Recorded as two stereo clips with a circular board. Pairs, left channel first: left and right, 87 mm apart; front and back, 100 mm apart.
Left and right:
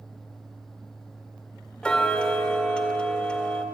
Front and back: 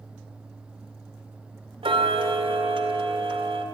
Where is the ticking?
165° left, 2 m.